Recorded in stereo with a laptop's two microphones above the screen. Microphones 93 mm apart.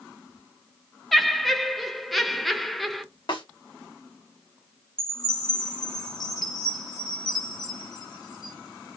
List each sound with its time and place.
1.1 s laughter: centre (ahead or behind), 0.6 m
3.3 s a snare drum: 55° left (ahead or behind), 1.6 m
5.0 s a chime: 45° left (ahead or behind), 1.2 m